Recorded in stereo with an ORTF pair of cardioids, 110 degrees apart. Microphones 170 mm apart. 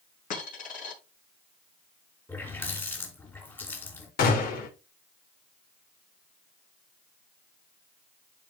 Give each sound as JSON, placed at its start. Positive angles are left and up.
{"t": 0.3, "sound": "a dropped coin", "azimuth_deg": 55, "distance_m": 4.5}
{"t": 2.3, "sound": "a running tap", "azimuth_deg": 15, "distance_m": 3.5}
{"t": 4.2, "sound": "a gunshot", "azimuth_deg": 60, "distance_m": 3.0}